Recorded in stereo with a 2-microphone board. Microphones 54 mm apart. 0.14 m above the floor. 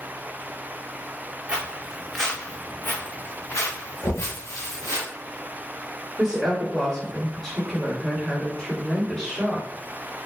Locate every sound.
1.5 s footsteps: 20° right (ahead or behind), 0.8 m; by 5.0 s 85° left, 1.6 m
4.0 s knocking: 55° left (ahead or behind), 1.2 m
6.2 s a woman speaking: 10° left (ahead or behind), 1.7 m